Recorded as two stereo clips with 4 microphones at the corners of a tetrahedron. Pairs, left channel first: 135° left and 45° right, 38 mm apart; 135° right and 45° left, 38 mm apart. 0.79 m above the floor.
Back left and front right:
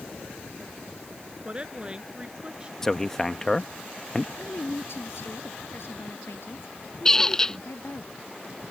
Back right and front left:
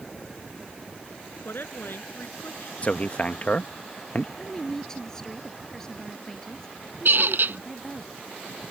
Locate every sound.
1.4 s a woman speaking: 110° right; by 2.7 s 115° right
2.8 s a man speaking: 155° right
4.4 s a woman speaking: 150° left
7.0 s a squeak: 60° left